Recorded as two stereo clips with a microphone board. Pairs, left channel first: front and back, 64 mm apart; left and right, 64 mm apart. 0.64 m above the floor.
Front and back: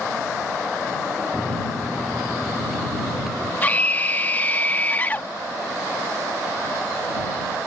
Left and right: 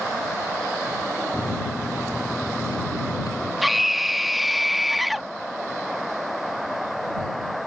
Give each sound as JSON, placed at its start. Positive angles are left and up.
{"t": 1.3, "sound": "a microwave", "azimuth_deg": 95}
{"t": 3.6, "sound": "a scream", "azimuth_deg": -5}